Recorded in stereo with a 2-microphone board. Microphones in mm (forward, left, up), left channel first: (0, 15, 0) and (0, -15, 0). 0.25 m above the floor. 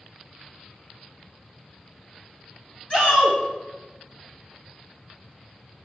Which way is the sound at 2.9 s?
35° left (ahead or behind).